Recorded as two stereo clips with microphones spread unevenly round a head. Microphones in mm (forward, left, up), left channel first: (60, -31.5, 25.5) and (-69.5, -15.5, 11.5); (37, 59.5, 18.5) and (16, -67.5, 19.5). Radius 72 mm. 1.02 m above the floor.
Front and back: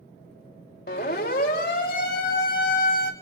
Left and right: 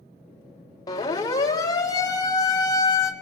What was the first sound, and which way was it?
A siren, 20° left.